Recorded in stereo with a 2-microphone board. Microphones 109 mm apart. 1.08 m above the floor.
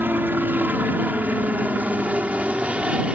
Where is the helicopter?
15° right (ahead or behind); by 3.1 s 10° right (ahead or behind).